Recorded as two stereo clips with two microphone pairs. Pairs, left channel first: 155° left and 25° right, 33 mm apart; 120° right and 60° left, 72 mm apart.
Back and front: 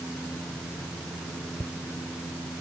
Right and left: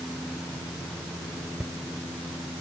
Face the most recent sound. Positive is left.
turn(degrees=140)